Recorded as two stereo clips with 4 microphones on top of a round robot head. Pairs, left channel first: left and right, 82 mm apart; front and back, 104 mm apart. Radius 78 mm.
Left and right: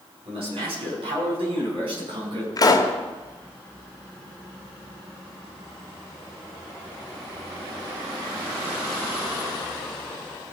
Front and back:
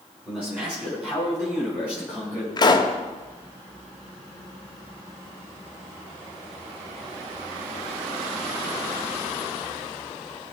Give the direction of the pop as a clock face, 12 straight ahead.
10 o'clock.